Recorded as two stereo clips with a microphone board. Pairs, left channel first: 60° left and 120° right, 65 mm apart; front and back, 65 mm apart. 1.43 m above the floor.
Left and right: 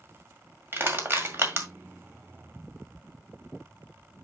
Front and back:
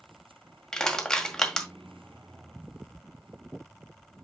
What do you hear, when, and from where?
0.7 s crushing: 80° right, 1.8 m